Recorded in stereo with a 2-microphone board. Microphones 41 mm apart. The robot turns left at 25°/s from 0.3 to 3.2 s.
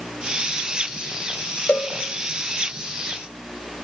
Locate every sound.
1.7 s a cowbell: 45° left (ahead or behind), 1.3 m; by 1.9 s 50° left (ahead or behind), 1.3 m